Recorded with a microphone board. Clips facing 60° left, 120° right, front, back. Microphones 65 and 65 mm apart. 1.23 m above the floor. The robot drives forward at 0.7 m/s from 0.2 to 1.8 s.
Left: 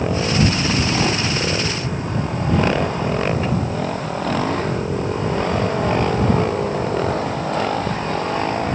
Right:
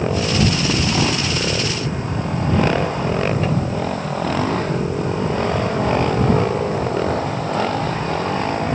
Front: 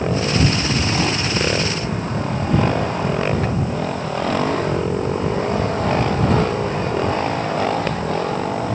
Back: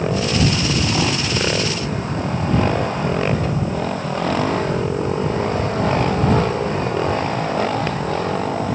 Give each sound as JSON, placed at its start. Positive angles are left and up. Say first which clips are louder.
{"t": 3.4, "sound": "a cupboard door", "louder": "right 1 dB, even", "azimuth_deg": -15, "distance_m": 5.5}